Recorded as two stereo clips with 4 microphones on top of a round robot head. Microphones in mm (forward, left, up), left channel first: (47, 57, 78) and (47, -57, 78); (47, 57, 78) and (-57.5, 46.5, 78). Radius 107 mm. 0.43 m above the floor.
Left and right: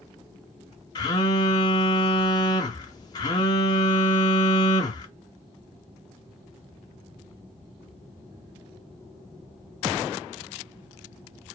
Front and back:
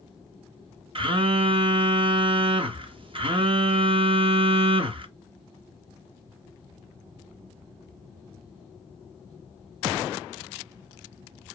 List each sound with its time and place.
0.9 s a phone buzzing: 145° left, 0.6 m